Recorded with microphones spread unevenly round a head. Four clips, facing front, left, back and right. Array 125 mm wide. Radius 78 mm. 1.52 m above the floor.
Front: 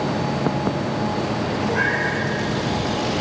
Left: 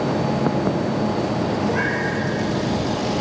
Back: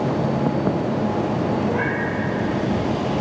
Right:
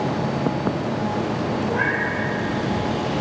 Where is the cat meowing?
100° left, 8 m.